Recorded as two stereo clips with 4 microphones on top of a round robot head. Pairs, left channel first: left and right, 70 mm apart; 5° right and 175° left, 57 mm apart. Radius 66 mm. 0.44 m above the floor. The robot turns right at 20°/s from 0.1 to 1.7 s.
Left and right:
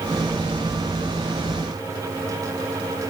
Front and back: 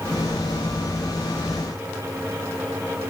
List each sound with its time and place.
Only background noise.